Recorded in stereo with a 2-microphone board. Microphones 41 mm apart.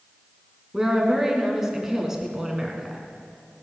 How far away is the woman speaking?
About 3 m.